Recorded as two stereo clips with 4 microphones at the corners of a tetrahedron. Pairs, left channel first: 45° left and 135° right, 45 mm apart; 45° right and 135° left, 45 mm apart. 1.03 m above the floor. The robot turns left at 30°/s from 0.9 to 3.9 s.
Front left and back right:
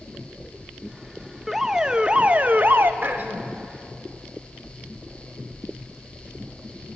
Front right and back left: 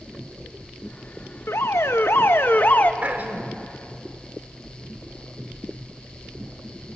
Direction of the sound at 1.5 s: 50° right.